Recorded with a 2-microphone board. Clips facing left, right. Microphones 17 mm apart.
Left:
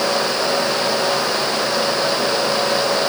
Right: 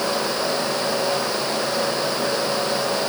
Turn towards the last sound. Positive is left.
No sound to turn to.